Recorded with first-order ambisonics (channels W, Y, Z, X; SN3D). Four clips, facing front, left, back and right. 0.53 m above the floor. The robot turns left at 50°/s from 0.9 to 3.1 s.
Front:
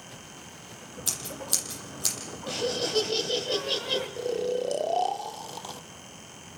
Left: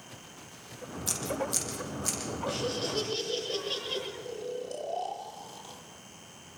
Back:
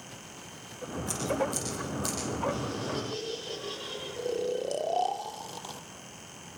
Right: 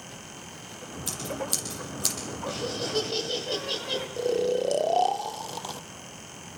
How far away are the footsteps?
No footsteps in this recording.